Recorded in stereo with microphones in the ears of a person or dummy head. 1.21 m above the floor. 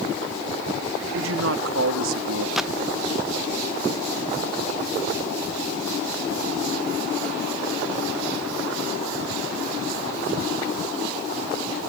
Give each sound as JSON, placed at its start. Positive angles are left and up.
{"t": 1.1, "sound": "a man speaking", "side_deg": -85}
{"t": 2.6, "sound": "a gunshot", "side_deg": -5}